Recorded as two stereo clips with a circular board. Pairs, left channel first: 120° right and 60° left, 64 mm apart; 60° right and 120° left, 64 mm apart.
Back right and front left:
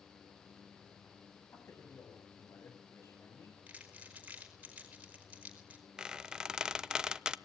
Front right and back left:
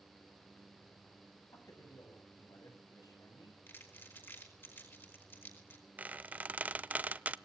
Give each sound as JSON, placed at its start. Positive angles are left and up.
{"t": 1.5, "sound": "a man speaking", "azimuth_deg": -75, "distance_m": 8.5}
{"t": 3.7, "sound": "crumpling", "azimuth_deg": -5, "distance_m": 4.5}
{"t": 6.0, "sound": "a squeak", "azimuth_deg": 120, "distance_m": 0.7}